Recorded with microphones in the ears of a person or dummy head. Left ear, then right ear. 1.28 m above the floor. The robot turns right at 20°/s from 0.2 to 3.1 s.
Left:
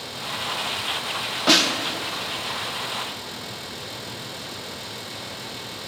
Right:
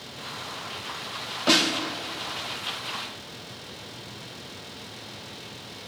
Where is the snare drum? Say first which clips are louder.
Left 3 dB; 5° left (ahead or behind), 0.5 m; by 1.7 s 10° left (ahead or behind), 0.5 m.